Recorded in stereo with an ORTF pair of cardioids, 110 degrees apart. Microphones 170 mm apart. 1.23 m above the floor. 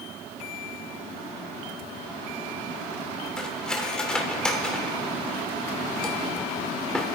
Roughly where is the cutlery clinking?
Ahead.